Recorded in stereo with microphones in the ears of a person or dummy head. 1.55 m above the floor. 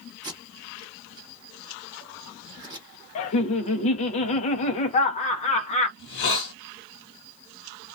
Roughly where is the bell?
I don't hear a bell.